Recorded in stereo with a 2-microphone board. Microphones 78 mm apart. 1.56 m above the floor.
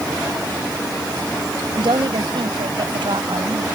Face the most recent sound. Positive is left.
turn(degrees=-85)